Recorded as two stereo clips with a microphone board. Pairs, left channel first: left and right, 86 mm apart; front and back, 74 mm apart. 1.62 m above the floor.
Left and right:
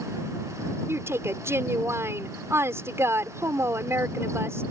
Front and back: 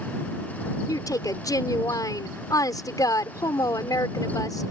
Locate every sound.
0.9 s a woman speaking: 30° right